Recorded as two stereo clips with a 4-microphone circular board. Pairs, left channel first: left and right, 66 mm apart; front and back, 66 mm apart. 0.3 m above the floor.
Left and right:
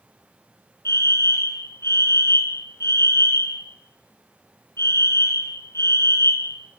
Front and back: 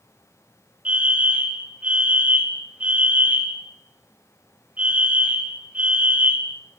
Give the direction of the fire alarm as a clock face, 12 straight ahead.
8 o'clock.